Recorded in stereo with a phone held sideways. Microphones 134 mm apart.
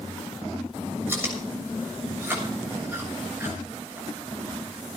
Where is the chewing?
15° right (ahead or behind), 7 m.